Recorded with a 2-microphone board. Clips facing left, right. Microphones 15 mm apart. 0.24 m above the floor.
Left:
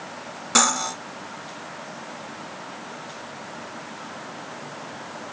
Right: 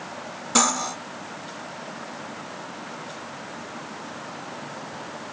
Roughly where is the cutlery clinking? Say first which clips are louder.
Left 1 dB; left.